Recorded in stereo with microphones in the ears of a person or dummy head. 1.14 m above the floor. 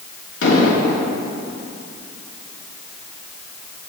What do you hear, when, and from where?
0.4 s an explosion: 70° left (ahead or behind), 2 m